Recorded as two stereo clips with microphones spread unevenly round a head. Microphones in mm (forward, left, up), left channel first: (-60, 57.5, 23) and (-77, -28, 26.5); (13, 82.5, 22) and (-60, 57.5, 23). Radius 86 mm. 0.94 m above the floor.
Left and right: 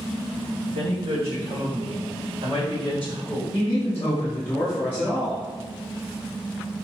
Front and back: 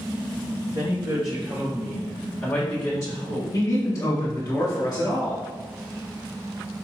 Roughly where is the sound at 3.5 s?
Ahead left.